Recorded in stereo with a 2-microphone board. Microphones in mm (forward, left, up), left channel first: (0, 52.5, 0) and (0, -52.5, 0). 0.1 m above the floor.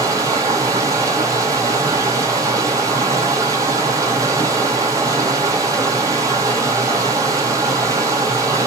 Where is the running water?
35° right (ahead or behind), 1.5 m.